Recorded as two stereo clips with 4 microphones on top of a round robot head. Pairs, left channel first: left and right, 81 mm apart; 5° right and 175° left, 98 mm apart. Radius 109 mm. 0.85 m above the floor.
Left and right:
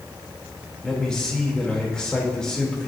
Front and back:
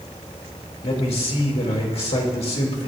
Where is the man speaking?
10° left, 2.5 m.